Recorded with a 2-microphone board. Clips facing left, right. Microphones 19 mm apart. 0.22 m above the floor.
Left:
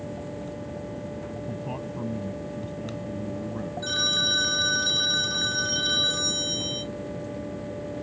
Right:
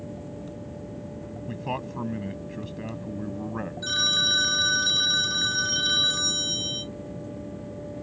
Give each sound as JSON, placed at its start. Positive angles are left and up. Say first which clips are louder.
{"t": 1.5, "sound": "a man speaking", "louder": "right 6 dB", "side_deg": -40}
{"t": 3.8, "sound": "a phone ringing", "louder": "right 1 dB", "side_deg": -10}